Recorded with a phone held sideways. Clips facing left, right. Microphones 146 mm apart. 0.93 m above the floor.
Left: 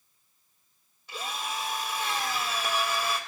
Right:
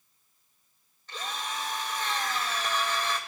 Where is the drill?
10° left (ahead or behind), 1.9 m.